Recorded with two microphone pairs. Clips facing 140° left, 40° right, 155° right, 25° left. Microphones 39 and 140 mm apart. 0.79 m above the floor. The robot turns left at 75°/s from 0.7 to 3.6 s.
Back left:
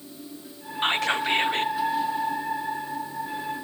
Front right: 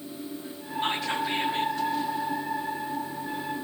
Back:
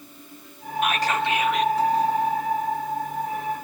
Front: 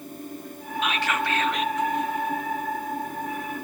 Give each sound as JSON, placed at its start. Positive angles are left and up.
{"t": 0.8, "sound": "whispering", "azimuth_deg": 170, "distance_m": 1.8}